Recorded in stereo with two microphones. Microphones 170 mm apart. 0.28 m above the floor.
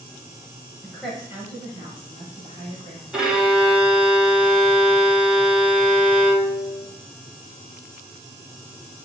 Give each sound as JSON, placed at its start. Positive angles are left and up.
{"t": 0.8, "sound": "a woman speaking", "side_deg": 10, "distance_m": 1.0}
{"t": 3.1, "sound": "a violin", "side_deg": -5, "distance_m": 0.8}